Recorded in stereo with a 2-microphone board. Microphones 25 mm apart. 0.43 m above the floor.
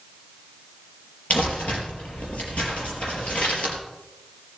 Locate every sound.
1.3 s crumpling: 70° left (ahead or behind), 4.5 m